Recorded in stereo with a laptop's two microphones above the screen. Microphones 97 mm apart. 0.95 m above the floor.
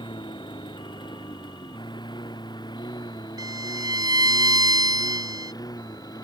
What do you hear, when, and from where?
0.0 s a lawn mower: 55° left (ahead or behind); by 6.2 s 40° left (ahead or behind)
3.4 s a violin: 40° right (ahead or behind)